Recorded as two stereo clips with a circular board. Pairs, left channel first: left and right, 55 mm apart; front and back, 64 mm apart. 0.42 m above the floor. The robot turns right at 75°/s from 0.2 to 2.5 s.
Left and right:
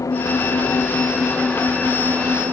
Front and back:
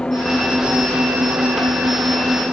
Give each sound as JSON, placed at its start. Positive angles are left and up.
{"t": 0.0, "sound": "an engine running", "azimuth_deg": 75}